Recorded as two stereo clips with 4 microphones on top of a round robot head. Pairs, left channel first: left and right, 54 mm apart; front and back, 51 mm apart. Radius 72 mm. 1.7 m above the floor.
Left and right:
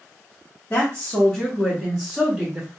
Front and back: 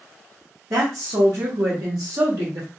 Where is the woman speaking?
150° left, 0.7 m; by 2.7 s 160° right, 1.4 m.